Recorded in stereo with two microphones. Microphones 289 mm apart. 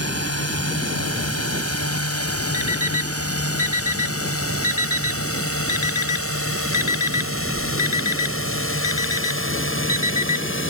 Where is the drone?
65° left (ahead or behind); by 10.7 s 50° left (ahead or behind).